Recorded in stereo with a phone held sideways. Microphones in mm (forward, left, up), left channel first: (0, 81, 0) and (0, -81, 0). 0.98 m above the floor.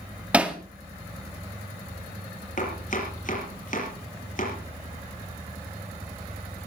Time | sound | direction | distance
0.3 | hammering | 5° right (ahead or behind) | 1.9 m
2.6 | chopping | 55° left (ahead or behind) | 6 m